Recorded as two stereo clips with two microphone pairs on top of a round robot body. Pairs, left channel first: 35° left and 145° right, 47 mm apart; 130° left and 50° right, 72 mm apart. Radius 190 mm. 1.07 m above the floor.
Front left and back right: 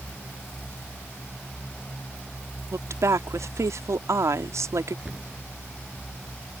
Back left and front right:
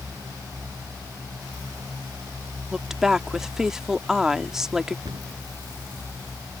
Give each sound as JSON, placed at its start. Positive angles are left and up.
{"t": 2.7, "sound": "a woman speaking", "azimuth_deg": -135}
{"t": 5.0, "sound": "a cupboard door", "azimuth_deg": -75}